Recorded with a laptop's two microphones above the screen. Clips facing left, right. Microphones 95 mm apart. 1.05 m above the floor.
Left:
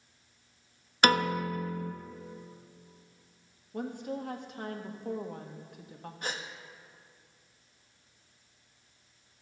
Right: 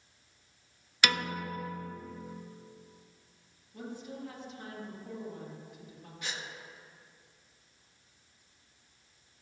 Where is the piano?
45° left (ahead or behind), 0.5 m.